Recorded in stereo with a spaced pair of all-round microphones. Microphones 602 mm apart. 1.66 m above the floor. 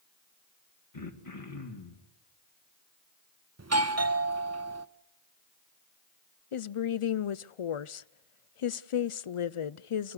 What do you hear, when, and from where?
0.9 s throat clearing: 65° left (ahead or behind), 2 m
3.6 s a doorbell: 25° right (ahead or behind), 0.7 m
6.5 s a woman speaking: 60° left (ahead or behind), 0.6 m